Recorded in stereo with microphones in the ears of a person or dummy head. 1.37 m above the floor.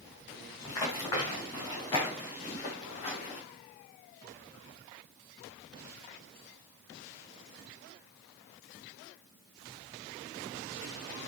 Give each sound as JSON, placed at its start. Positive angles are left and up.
{"t": 0.7, "sound": "running footsteps", "side_deg": 25, "distance_m": 5.5}